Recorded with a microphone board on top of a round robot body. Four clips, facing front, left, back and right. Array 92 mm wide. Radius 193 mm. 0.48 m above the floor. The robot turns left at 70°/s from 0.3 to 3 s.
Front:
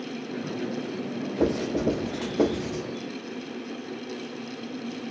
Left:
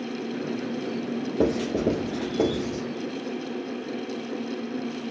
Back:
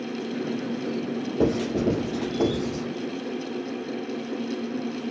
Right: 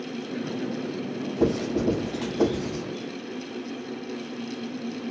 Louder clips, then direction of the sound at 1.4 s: Even, back 1 dB; 105° left.